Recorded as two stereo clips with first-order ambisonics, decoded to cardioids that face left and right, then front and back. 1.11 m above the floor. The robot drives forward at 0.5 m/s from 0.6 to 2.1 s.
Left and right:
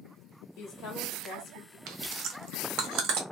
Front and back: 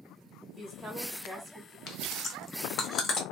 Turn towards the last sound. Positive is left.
turn(degrees=-65)